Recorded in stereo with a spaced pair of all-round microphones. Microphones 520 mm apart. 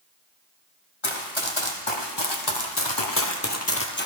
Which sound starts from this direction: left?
Running footsteps, at 1.0 s.